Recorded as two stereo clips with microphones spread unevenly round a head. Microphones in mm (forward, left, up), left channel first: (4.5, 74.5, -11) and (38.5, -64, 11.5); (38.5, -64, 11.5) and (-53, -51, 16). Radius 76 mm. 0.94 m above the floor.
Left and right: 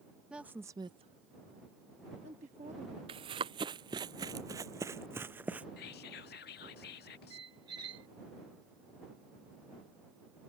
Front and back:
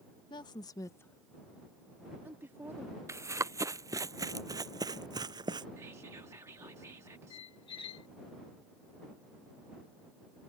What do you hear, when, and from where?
0.3 s a woman speaking: 15° left; by 3.0 s 130° right
3.1 s running footsteps: 130° right; by 5.7 s 155° right
5.8 s whispering: 100° left
7.3 s a squeak: 25° right